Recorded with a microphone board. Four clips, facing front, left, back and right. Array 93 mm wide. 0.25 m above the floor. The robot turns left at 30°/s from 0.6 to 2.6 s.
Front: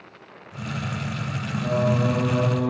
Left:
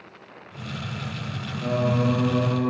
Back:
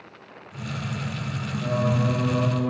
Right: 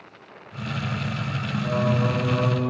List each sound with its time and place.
1.6 s singing: 110° left, 2.5 m; by 2.7 s 80° left, 2.5 m